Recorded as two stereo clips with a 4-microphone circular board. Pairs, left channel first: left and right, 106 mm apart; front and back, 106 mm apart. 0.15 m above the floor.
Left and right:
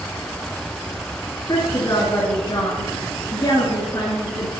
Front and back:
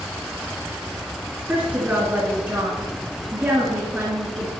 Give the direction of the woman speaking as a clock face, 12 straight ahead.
8 o'clock.